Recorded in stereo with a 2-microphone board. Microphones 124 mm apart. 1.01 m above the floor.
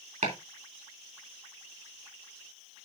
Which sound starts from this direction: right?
Chopping, at 0.2 s.